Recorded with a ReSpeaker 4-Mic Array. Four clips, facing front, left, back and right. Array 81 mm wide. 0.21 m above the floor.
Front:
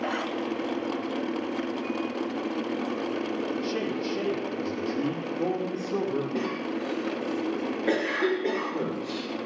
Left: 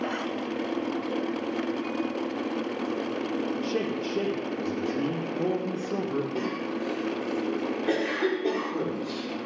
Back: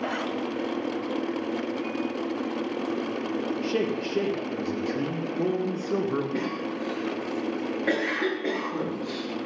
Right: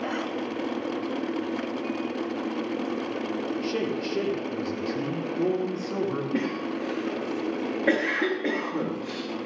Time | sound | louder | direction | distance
3.6 | a man speaking | right 1 dB, back 2 dB | 155° right | 4 m
6.3 | a cough | right 2 dB, even | 105° right | 3.5 m